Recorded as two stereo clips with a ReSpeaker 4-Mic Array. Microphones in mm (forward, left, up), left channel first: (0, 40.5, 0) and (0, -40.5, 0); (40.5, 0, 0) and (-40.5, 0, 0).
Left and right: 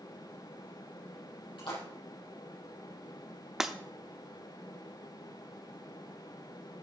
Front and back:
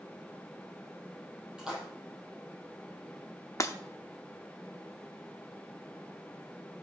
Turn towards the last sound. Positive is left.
turn(degrees=-10)